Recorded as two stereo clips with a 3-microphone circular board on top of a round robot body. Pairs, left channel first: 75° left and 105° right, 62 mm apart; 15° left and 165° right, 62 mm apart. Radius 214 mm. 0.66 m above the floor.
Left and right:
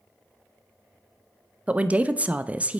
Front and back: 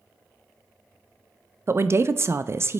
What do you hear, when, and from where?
1.7 s a woman speaking: 160° right, 0.5 m